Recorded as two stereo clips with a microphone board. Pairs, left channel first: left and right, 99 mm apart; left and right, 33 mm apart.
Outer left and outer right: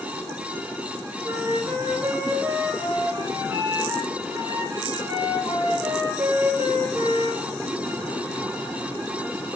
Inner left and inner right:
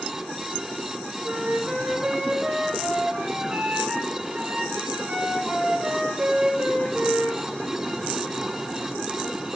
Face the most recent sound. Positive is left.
turn(degrees=-25)  # may be behind; listen again after turning